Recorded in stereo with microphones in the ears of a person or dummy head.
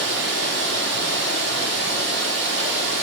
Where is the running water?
55° right (ahead or behind), 6 m.